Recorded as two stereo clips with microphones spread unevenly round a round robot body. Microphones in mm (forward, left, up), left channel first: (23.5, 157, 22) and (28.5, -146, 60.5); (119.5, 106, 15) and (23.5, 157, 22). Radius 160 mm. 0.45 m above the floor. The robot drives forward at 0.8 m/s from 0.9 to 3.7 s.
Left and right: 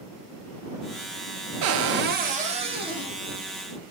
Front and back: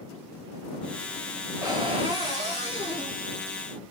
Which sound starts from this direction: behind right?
A cupboard door, at 1.6 s.